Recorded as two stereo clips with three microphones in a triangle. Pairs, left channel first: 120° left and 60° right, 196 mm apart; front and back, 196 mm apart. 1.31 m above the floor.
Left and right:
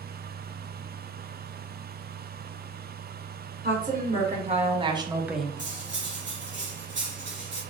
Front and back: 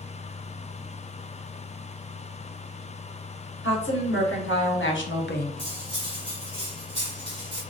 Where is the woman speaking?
10° right, 1.8 m; by 5.6 s 40° left, 0.6 m.